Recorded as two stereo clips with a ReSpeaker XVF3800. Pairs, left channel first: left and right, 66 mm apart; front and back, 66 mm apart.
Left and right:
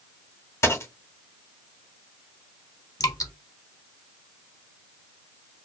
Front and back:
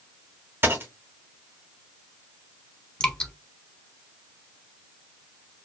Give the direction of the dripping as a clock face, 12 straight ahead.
10 o'clock.